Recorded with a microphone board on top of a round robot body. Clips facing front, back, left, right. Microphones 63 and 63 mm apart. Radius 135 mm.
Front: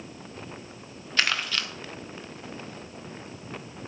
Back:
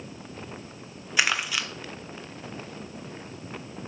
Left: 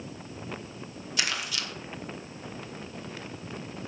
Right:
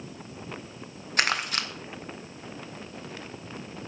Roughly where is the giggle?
No giggle in this recording.